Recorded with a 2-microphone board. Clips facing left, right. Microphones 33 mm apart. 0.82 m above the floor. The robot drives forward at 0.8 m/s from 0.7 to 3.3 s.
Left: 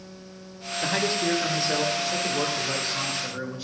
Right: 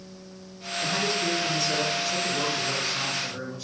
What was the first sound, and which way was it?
A man speaking, 35° left (ahead or behind).